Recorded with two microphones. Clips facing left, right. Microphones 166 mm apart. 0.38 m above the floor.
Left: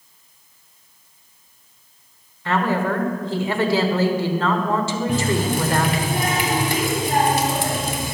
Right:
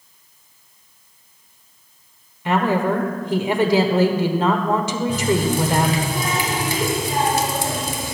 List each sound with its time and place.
2.5 s a woman speaking: 15° right (ahead or behind), 1.2 m
5.1 s a running tap: 60° left (ahead or behind), 1.7 m